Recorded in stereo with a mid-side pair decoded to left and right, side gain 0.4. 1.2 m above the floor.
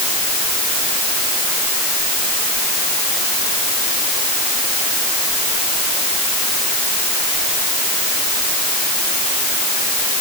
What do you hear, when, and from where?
Only background noise.